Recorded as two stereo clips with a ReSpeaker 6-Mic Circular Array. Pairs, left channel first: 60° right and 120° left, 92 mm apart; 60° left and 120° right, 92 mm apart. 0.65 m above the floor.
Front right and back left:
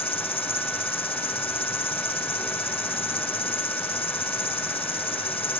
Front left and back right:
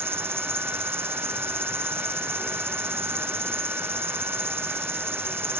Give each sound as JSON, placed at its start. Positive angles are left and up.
{"t": 0.0, "sound": "an insect", "azimuth_deg": -55}